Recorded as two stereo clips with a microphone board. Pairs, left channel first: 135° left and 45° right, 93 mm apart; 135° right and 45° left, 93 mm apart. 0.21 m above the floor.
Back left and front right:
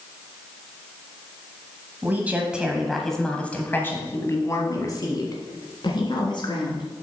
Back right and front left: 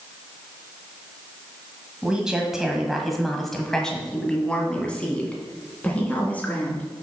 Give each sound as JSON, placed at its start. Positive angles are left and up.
{"t": 2.0, "sound": "a woman speaking", "azimuth_deg": -20, "distance_m": 1.3}